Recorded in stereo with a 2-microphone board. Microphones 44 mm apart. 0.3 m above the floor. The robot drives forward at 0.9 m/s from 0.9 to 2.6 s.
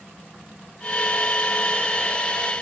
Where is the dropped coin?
No dropped coin in this recording.